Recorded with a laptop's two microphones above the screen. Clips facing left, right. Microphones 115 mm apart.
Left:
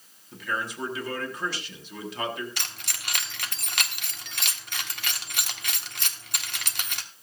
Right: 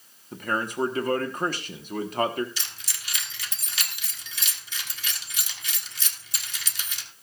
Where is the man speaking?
45° right (ahead or behind), 1.3 m.